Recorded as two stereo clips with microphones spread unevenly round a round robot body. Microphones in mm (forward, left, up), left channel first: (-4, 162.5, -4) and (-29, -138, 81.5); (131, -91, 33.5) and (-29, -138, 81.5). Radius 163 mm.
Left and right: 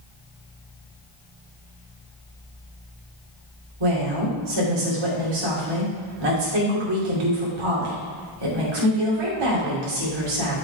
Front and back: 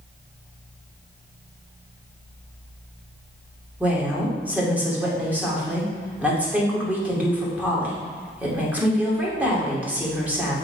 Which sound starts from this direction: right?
A woman speaking, at 3.8 s.